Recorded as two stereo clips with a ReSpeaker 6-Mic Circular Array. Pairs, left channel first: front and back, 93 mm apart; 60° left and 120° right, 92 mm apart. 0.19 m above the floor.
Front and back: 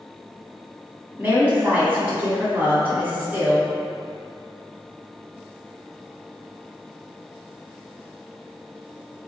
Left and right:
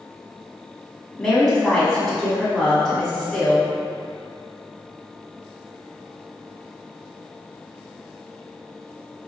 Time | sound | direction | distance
1.2 | a woman speaking | 140° left | 1.5 m